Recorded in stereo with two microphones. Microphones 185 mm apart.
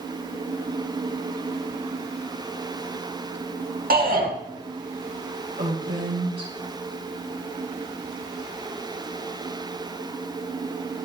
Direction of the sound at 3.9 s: 55° right (ahead or behind).